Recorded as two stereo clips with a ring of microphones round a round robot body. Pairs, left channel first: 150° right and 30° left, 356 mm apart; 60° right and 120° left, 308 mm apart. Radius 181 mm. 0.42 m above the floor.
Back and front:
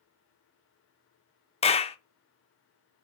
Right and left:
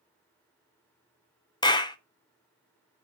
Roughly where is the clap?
Right.